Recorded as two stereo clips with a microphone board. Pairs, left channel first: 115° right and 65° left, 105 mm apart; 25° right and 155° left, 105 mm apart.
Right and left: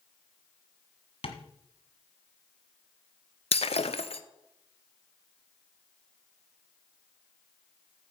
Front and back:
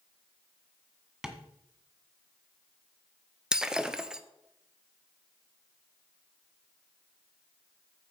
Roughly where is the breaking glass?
Behind right.